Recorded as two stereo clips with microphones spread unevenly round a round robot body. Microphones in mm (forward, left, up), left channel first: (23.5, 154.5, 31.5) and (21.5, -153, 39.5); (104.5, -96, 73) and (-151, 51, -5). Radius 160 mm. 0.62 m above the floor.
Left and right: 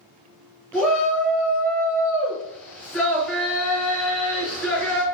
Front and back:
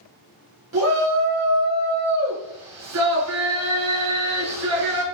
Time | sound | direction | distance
0.7 | a shout | 175° left | 4.5 m